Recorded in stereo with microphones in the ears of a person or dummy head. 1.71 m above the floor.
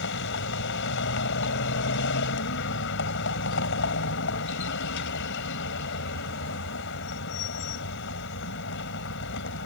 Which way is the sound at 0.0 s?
60° left (ahead or behind).